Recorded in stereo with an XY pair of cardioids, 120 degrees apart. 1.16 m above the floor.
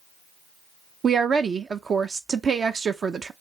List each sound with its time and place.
1.0 s a woman speaking: 35° right, 0.5 m